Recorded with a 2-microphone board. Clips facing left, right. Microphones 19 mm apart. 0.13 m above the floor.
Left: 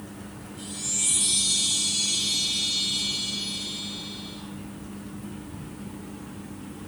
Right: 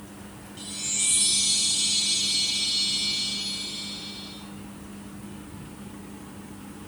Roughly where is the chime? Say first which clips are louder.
Right 1 dB; right.